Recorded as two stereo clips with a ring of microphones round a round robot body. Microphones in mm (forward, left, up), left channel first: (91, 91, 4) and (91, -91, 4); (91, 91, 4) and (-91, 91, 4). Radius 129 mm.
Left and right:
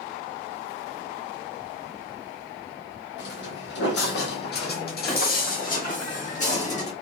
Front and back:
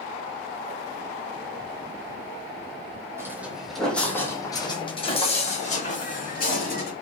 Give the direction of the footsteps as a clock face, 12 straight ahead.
8 o'clock.